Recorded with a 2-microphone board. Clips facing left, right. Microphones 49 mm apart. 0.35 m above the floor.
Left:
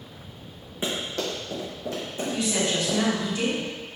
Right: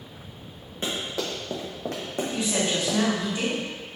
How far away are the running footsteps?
About 1.4 m.